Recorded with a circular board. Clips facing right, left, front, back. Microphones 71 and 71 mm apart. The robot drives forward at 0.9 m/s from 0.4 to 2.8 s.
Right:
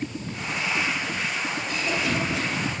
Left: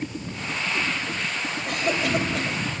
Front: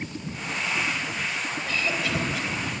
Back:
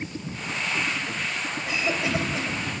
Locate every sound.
1.7 s a cough: 105° left, 3 m; by 2.7 s 120° left, 3.5 m